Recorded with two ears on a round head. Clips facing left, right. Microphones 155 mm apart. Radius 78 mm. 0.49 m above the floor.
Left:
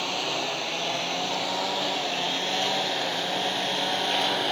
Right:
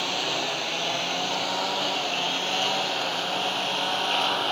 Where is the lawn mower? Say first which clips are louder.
Even; centre (ahead or behind); by 4.5 s 15° left (ahead or behind).